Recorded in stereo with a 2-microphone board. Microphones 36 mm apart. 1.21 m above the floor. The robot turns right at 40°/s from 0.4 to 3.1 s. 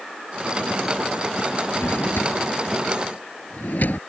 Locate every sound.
1.8 s a drawer: 65° left (ahead or behind); by 4.0 s 60° left (ahead or behind)